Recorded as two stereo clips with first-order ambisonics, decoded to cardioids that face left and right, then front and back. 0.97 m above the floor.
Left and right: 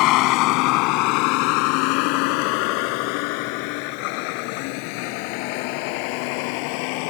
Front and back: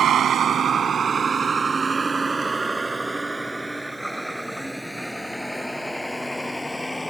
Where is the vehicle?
120° left; by 7.1 s 85° left.